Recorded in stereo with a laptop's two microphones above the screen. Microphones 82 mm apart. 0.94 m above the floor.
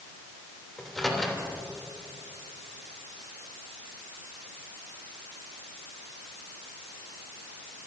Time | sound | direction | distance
0.8 | a microwave | 5° left (ahead or behind) | 3 m